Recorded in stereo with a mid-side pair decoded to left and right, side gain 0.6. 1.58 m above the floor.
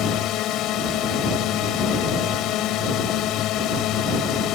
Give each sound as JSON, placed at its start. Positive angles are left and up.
{"t": 0.0, "sound": "a drone", "azimuth_deg": 60}